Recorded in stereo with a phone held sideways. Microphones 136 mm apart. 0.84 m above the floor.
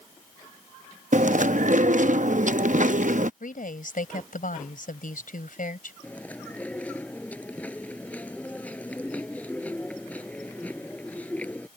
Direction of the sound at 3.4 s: 85° left.